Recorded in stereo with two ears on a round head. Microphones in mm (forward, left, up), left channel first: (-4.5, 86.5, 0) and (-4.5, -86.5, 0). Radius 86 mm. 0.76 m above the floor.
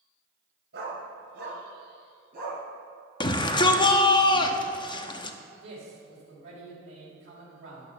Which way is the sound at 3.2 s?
25° left (ahead or behind).